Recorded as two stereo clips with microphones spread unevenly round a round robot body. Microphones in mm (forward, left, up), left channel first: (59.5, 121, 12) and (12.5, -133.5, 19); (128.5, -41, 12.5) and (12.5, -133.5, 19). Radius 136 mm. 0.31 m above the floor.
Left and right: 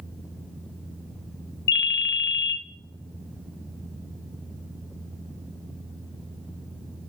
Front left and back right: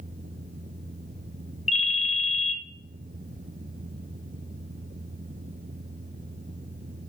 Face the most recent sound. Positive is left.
turn(degrees=55)